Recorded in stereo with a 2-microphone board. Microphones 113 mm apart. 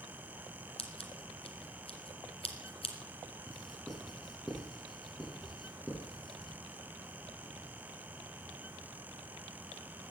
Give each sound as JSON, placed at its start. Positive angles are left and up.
{"t": 0.8, "sound": "scissors", "side_deg": 60, "distance_m": 2.0}
{"t": 3.5, "sound": "writing", "side_deg": 0, "distance_m": 7.5}